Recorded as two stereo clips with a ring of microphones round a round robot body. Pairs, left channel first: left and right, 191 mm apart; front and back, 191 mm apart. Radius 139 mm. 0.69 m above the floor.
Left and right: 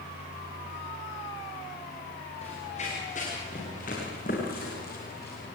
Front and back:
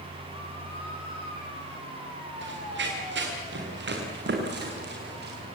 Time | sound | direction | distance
2.4 | running footsteps | 160° left | 5.5 m